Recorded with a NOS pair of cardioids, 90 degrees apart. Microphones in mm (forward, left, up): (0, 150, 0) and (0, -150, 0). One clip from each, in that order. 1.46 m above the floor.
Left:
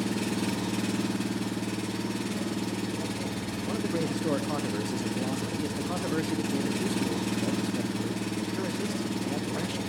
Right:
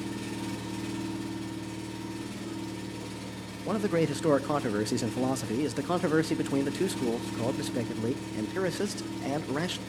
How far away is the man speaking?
About 0.6 m.